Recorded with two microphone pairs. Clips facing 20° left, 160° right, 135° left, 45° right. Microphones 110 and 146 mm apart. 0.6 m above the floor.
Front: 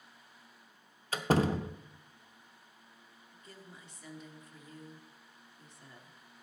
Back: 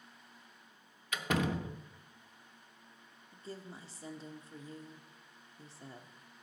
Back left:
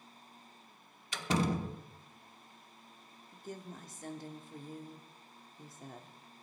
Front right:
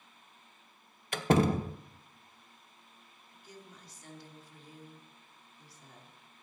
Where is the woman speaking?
150° left, 1.1 m.